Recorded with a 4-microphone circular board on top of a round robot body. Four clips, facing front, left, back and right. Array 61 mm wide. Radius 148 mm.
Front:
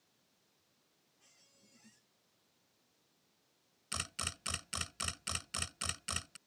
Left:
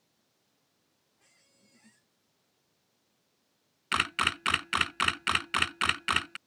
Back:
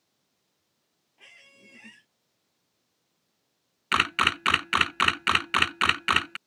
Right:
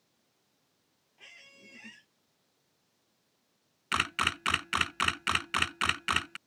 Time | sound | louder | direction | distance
1.2 | a squeak | right 14 dB, back 18 dB | 150° right | ?
3.9 | a camera shutter | left 1 dB, back 21 dB | straight behind | ?